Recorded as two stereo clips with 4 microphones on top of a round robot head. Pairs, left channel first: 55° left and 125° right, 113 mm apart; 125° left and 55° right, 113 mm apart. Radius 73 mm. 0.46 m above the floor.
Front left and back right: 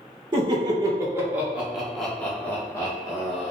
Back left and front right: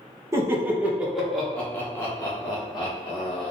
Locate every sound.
0.3 s laughter: 105° right, 1.3 m; by 3.5 s 100° left, 1.6 m